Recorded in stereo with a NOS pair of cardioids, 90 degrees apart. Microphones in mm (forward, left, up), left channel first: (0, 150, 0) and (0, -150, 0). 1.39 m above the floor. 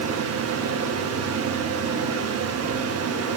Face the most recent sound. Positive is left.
turn(degrees=-55)